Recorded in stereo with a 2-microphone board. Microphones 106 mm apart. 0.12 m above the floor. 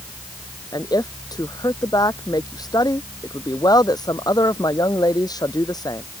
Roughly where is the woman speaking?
Left.